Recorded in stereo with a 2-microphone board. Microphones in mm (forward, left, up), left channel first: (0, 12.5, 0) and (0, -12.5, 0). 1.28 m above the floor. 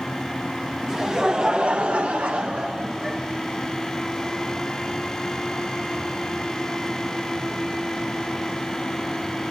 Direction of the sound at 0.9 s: 20° right (ahead or behind).